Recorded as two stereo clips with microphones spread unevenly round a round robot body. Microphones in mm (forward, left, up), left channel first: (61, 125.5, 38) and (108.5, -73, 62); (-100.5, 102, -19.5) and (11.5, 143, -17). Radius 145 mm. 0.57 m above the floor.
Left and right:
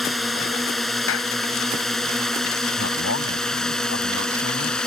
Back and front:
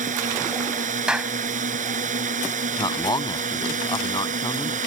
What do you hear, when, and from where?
0.0 s a drone: 15° left
1.1 s a clap: 100° left
2.8 s a man speaking: 145° left